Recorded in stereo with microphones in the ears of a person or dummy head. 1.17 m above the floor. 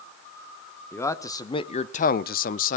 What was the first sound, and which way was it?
A man speaking, 5° left (ahead or behind).